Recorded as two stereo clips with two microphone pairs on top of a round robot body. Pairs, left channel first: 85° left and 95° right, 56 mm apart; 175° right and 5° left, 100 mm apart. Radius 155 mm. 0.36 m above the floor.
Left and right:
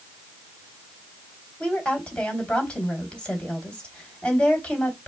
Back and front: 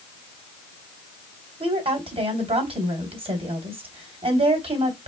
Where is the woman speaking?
15° left, 2.5 m.